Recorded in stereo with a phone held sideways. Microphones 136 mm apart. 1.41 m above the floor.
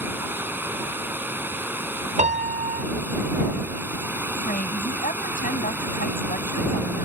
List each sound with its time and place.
0.0 s running water: 15° right (ahead or behind)
2.2 s a piano: 60° right (ahead or behind)
4.5 s a woman speaking: 70° left (ahead or behind)